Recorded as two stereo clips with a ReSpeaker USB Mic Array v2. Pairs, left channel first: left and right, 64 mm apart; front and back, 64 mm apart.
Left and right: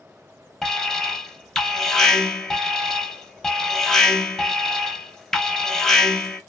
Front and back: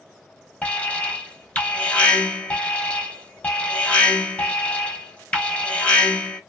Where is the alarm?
25° left, 0.8 m.